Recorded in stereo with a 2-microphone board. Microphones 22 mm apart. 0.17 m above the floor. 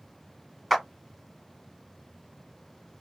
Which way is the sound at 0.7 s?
Centre (ahead or behind).